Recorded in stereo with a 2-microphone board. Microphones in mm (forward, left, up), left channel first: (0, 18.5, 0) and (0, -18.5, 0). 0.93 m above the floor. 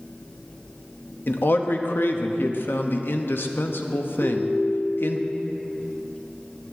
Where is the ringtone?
75° left (ahead or behind), 4 m.